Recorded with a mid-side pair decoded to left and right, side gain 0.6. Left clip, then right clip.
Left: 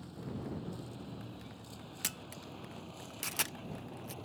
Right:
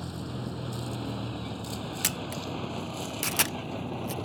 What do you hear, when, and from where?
0.0 s a vehicle: 60° right; by 4.2 s 55° right
2.0 s a camera shutter: 40° right